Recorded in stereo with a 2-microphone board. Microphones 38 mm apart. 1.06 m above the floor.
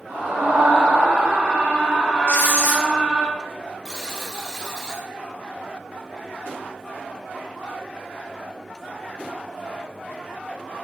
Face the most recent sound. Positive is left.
turn(degrees=15)  # may be behind; listen again after turning